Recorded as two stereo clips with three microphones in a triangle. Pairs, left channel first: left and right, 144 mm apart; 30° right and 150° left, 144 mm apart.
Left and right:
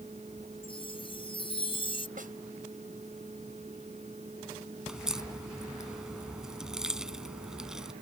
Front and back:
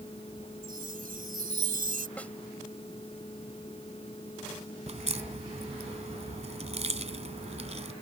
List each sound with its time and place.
0.6 s a chime: 140° left
2.2 s a snare drum: 110° right
4.9 s a crack: 175° right